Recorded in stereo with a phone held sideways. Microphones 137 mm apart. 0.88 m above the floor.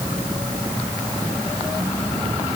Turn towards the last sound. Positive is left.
No sound to turn to.